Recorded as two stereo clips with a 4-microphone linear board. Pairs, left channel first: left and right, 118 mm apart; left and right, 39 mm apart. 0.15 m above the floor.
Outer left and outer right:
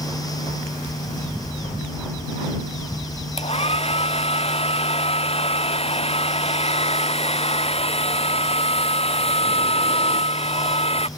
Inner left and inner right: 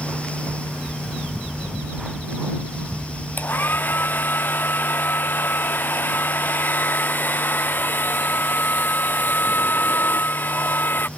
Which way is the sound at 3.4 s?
55° left (ahead or behind).